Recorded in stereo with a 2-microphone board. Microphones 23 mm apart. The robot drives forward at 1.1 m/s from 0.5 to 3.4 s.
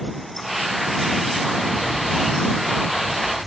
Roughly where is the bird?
Centre.